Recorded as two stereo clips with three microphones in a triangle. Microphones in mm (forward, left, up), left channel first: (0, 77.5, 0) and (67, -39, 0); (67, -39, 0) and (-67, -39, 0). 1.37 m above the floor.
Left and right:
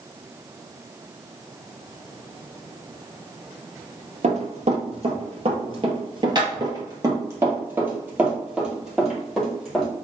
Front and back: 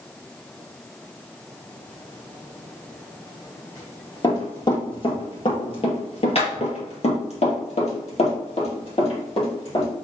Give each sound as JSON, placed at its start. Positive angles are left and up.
{"t": 4.2, "sound": "running footsteps", "azimuth_deg": -50, "distance_m": 2.5}